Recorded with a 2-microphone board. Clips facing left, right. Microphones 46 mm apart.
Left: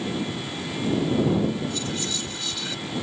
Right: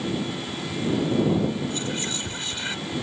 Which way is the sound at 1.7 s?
30° right (ahead or behind).